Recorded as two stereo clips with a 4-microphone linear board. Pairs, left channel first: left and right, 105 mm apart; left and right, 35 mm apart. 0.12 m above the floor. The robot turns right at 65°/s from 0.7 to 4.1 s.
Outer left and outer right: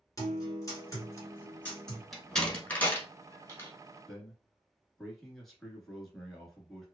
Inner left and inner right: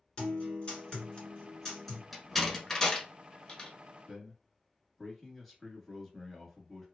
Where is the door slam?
Centre (ahead or behind), 1.0 m; by 3.7 s 25° left (ahead or behind), 1.0 m.